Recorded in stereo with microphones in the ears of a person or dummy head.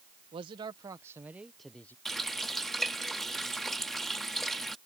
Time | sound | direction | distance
0.3 | a man speaking | 30° right (ahead or behind) | ?
2.0 | a running tap | 5° left (ahead or behind) | ?